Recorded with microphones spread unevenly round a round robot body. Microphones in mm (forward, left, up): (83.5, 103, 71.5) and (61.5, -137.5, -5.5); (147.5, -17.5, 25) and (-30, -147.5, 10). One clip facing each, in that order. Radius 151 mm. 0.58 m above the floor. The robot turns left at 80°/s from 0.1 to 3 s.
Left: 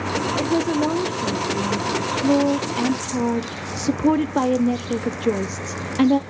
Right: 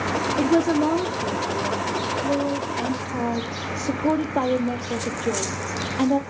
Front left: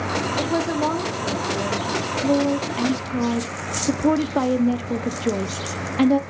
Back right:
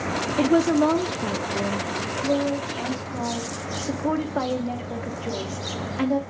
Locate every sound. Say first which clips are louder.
0.4 s a woman speaking: right 2 dB, back right 6 dB; 125° right, 0.7 m; by 6.2 s 25° left, 0.7 m